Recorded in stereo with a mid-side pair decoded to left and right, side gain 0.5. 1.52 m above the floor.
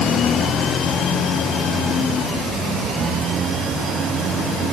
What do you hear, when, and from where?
Only background noise.